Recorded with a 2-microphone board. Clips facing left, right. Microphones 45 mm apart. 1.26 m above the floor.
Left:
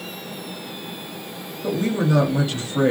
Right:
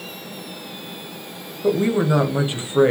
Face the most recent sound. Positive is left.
turn(degrees=-20)  # may be behind; listen again after turning